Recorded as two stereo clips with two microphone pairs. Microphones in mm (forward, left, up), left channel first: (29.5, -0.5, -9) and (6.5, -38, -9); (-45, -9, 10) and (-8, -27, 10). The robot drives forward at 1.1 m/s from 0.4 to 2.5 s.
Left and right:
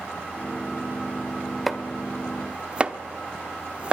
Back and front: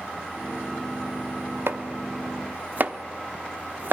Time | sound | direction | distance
1.7 | chopping | 30° right | 1.7 m